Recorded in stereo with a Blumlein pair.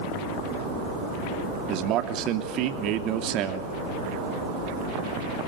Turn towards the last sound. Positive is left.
turn(degrees=-35)